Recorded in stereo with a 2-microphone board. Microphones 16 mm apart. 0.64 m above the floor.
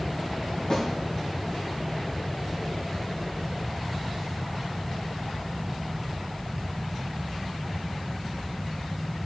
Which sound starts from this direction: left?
A snare drum, at 0.7 s.